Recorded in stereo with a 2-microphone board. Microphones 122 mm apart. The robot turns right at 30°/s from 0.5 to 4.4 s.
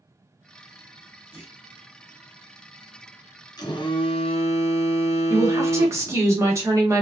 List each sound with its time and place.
1.3 s a clunk: 15° right (ahead or behind), 1.3 m; by 1.6 s 10° right (ahead or behind), 1.3 m
3.6 s a phone buzzing: 35° left (ahead or behind), 0.6 m; by 6.2 s 60° left (ahead or behind), 0.6 m
5.3 s a woman speaking: 25° right (ahead or behind), 1.0 m